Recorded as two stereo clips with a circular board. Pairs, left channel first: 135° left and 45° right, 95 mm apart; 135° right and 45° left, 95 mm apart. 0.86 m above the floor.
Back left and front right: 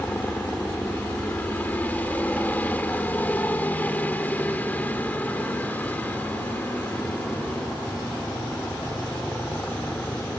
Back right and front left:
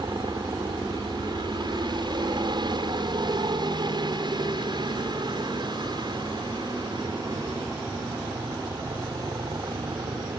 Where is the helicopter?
65° left.